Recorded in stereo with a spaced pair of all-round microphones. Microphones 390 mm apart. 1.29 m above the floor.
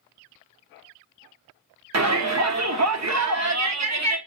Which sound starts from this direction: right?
A shout, at 1.9 s.